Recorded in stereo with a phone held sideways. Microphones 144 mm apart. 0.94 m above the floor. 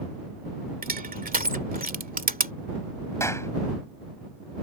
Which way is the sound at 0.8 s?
85° right.